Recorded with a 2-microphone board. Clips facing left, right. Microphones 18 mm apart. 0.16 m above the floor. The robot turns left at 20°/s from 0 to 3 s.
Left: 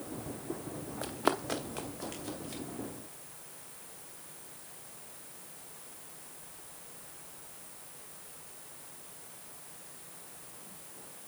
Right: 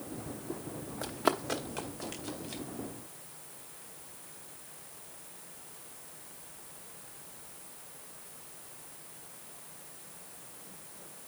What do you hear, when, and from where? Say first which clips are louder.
1.0 s running footsteps: right 1 dB; centre (ahead or behind), 0.8 m; by 2.6 s 15° right (ahead or behind), 3 m